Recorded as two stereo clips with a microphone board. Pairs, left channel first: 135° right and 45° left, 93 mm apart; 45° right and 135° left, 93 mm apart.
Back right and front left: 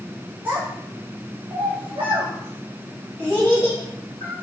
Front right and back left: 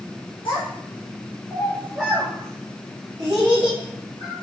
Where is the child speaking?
25° right, 1.0 m; by 4.3 s 105° left, 1.8 m.